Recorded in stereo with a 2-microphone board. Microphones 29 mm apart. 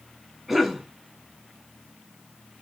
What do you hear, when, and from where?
0.5 s a cough: centre (ahead or behind), 1.0 m